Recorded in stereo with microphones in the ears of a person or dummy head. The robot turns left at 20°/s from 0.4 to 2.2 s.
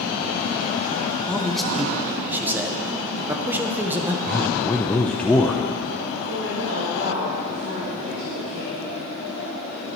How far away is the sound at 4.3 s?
About 0.9 m.